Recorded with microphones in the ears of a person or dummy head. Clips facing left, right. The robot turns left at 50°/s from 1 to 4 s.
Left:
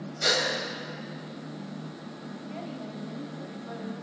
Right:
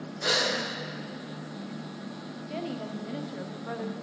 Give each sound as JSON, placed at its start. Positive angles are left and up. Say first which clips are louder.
{"t": 0.2, "sound": "a gasp", "louder": "left 1 dB", "side_deg": 40, "distance_m": 1.8}
{"t": 2.5, "sound": "a woman speaking", "louder": "right 5 dB", "azimuth_deg": -50, "distance_m": 0.6}